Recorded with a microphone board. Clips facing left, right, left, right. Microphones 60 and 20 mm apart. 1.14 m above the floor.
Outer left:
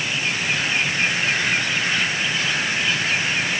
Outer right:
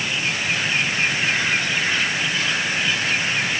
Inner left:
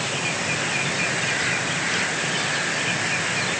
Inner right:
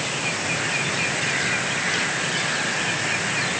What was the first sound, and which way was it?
Only background noise.